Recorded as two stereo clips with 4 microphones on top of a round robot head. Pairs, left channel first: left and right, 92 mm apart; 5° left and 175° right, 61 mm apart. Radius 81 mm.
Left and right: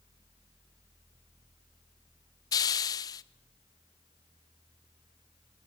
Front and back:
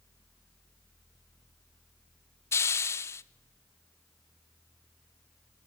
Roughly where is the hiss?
Ahead left.